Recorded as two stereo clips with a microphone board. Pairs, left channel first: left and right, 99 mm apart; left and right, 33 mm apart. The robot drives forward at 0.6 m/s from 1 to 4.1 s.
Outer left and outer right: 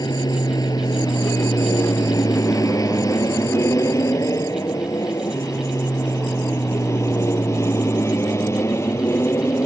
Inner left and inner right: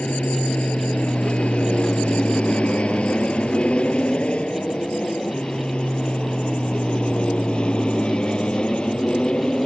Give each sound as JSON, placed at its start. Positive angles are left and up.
{"t": 0.0, "sound": "an aircraft", "side_deg": 40}